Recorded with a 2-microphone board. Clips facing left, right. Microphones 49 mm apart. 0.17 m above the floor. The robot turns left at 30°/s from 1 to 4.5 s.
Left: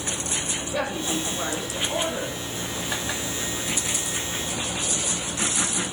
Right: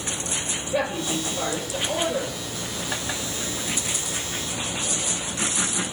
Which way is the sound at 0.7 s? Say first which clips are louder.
Right 2 dB; 20° right.